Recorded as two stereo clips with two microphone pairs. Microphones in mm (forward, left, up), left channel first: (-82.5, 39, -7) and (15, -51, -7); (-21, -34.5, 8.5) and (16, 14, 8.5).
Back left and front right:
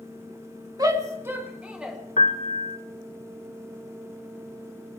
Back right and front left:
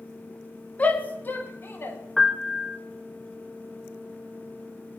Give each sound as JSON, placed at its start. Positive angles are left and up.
{"t": 0.8, "sound": "a shout", "azimuth_deg": -85, "distance_m": 2.0}
{"t": 2.2, "sound": "a piano", "azimuth_deg": 140, "distance_m": 0.9}